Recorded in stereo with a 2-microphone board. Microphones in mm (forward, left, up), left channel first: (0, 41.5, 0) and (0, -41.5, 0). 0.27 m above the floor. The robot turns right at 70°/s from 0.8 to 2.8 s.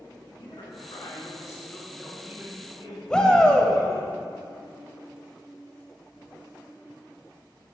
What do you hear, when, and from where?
0.4 s a man speaking: 90° left, 2.5 m; by 4.1 s 130° right, 2.5 m
3.1 s a shout: 10° left (ahead or behind), 0.9 m